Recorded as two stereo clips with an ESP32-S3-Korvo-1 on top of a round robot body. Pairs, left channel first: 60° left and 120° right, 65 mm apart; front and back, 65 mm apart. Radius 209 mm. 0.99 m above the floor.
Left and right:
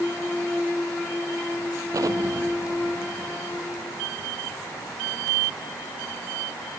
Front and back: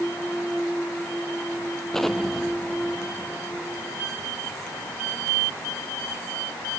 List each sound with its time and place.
1.9 s an explosion: 85° right